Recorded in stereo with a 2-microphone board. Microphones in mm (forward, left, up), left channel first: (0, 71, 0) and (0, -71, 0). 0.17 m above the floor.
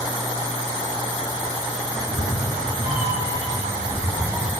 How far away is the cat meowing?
About 1.2 m.